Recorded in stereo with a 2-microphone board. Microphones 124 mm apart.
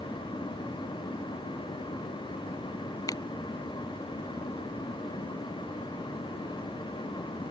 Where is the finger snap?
30° left (ahead or behind).